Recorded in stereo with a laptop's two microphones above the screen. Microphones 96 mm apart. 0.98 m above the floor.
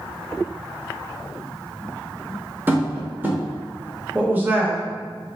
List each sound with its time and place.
2.7 s tapping: 20° right (ahead or behind), 0.7 m
4.2 s a woman speaking: 20° right (ahead or behind), 0.5 m